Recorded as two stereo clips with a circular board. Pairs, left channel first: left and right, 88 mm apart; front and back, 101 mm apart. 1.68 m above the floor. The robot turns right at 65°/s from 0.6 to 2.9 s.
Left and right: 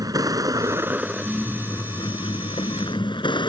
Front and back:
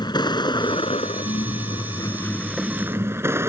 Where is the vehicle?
45° right; by 3.5 s 115° left.